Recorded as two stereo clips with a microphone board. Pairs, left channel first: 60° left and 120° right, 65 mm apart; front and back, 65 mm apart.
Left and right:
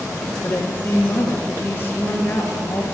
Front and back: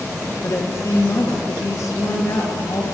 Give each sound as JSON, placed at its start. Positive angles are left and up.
{"t": 0.4, "sound": "a woman speaking", "azimuth_deg": 10, "distance_m": 2.5}